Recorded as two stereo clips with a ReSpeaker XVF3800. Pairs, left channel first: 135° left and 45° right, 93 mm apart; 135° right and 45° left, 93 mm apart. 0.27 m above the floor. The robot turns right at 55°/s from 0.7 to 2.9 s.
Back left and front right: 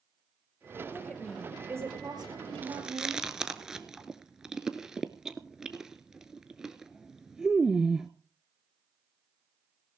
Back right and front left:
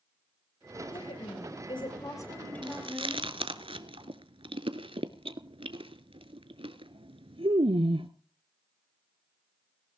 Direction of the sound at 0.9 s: 155° right.